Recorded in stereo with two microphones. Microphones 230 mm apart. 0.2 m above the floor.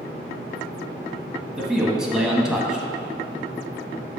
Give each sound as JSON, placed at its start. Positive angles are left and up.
{"t": 1.6, "sound": "a man speaking", "side_deg": -5, "distance_m": 1.0}